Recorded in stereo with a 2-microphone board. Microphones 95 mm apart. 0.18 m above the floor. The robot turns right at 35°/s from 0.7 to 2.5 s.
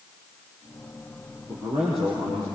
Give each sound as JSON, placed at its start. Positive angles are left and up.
{"t": 1.5, "sound": "a man speaking", "azimuth_deg": -20, "distance_m": 6.5}